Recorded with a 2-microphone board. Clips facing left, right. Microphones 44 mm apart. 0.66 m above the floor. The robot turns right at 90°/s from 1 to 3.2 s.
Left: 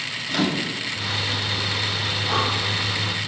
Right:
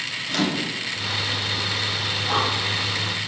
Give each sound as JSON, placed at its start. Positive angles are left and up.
{"t": 0.3, "sound": "a microwave", "side_deg": 5, "distance_m": 0.7}
{"t": 2.3, "sound": "breathing", "side_deg": 0, "distance_m": 5.5}